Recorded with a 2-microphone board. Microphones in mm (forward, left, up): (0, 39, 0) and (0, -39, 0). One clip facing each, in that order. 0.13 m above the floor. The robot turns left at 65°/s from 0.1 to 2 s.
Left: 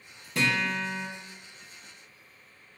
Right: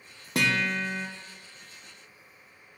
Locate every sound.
0.3 s a guitar: 105° right, 0.9 m; by 1.1 s 150° right, 0.9 m